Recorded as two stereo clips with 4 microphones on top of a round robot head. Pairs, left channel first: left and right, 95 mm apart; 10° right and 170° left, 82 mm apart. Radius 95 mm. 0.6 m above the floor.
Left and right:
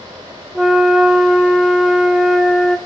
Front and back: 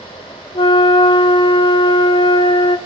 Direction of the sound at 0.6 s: 5° right.